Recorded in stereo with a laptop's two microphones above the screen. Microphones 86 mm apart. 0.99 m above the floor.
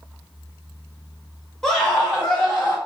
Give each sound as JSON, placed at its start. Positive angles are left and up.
{"t": 1.6, "sound": "a scream", "side_deg": 5, "distance_m": 1.3}